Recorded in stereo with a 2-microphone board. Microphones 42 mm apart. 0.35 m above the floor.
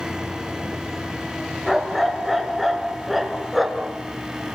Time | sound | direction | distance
1.7 | a dog barking | centre (ahead or behind) | 2 m